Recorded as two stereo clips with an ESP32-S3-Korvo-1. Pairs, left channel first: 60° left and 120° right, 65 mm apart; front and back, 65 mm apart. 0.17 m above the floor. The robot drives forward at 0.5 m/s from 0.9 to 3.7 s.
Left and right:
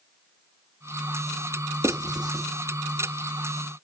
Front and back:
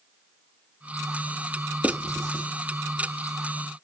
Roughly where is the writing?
Behind right.